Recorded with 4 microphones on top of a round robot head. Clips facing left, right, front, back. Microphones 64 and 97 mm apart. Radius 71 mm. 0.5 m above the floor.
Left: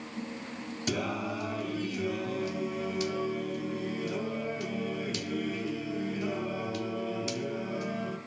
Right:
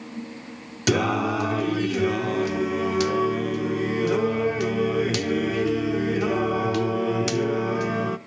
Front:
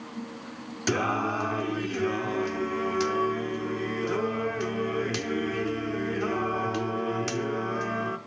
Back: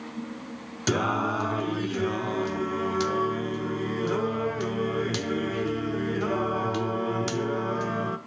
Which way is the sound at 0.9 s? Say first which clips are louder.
Right 11 dB, back 1 dB; 100° right.